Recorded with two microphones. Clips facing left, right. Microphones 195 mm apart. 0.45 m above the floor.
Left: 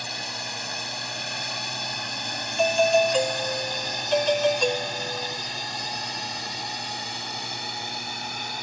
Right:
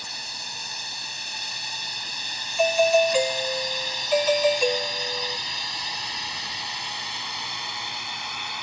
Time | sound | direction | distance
0.0 | a drone | 65° left (ahead or behind) | ?
2.6 | a doorbell | 5° right (ahead or behind) | ?